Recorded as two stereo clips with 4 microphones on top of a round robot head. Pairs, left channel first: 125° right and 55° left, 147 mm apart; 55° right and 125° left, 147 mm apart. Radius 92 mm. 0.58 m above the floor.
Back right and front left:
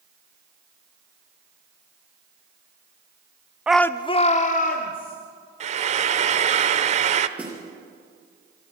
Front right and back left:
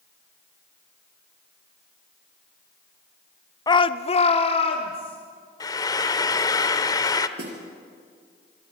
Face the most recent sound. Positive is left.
turn(degrees=135)